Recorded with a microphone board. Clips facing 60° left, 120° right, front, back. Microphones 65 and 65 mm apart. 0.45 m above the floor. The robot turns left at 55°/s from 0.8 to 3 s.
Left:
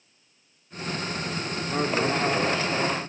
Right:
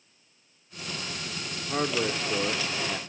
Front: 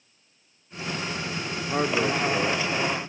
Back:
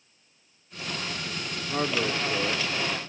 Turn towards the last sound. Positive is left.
turn(degrees=-95)